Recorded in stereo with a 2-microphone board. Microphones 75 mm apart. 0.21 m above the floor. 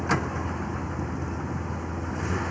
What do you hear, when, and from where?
0.0 s a vehicle: centre (ahead or behind)